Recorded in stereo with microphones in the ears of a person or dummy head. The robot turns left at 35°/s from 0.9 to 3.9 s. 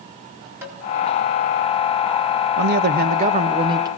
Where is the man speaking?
115° right, 1.4 m; by 3.9 s 160° right, 1.4 m.